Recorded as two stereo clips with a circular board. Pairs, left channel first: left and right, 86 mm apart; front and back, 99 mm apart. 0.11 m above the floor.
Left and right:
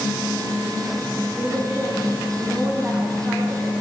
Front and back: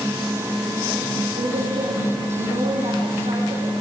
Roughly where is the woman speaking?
Behind.